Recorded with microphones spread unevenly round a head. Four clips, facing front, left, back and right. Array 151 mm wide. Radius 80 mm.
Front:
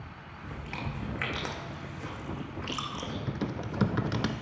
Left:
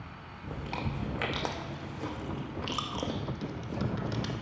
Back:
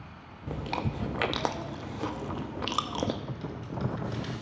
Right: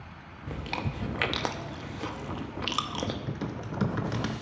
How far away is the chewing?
About 0.6 m.